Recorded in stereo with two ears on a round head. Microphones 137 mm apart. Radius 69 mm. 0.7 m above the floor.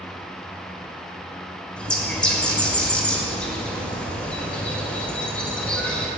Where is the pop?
No pop in this recording.